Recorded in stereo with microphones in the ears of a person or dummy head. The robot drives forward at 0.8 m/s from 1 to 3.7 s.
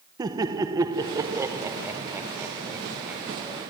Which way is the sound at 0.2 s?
20° right (ahead or behind).